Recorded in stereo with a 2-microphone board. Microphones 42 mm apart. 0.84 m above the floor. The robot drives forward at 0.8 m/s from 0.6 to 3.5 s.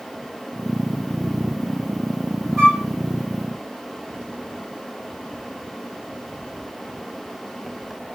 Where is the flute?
10° left (ahead or behind), 3.5 m; by 2.8 s 15° left (ahead or behind), 3.5 m.